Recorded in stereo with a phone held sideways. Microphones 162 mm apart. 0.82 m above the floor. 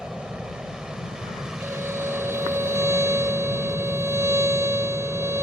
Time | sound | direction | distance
0.0 | an aircraft | 5° right (ahead or behind) | ?
1.6 | a violin | 15° right (ahead or behind) | ?